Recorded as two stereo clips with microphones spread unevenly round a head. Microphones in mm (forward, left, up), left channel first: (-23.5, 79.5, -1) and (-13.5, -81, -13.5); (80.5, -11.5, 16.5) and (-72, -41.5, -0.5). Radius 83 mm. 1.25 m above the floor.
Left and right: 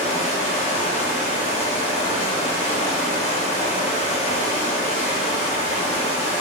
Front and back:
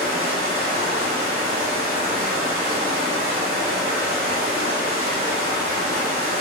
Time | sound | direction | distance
0.0 | running water | 140° left | 0.8 m